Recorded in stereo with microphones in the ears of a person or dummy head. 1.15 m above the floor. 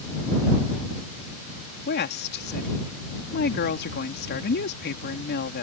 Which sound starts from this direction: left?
A woman speaking, at 1.9 s.